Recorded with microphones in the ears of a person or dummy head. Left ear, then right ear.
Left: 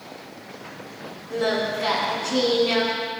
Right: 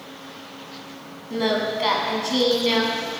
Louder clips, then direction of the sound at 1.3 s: Right 1 dB; 55° right (ahead or behind).